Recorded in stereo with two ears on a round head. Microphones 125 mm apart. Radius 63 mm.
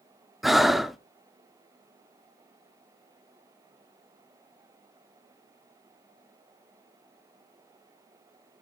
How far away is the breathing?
About 0.6 m.